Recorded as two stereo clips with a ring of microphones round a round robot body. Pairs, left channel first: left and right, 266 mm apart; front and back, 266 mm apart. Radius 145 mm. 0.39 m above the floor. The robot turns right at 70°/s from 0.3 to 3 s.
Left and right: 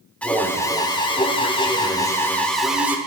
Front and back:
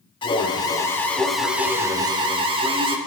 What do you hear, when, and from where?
0.2 s an alarm: 15° left, 1.1 m; by 3.0 s 155° right, 1.1 m